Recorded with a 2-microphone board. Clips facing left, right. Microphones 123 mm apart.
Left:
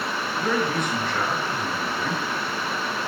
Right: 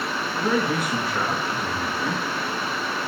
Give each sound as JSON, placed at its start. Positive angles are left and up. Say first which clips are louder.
{"t": 0.4, "sound": "a man speaking", "louder": "right 2 dB", "side_deg": -5, "distance_m": 4.5}